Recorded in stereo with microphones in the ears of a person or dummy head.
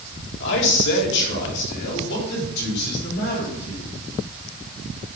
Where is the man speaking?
65° left (ahead or behind), 2.0 m; by 3.8 s 55° left (ahead or behind), 4.5 m.